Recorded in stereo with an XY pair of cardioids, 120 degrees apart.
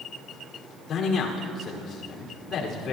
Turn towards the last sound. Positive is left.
turn(degrees=55)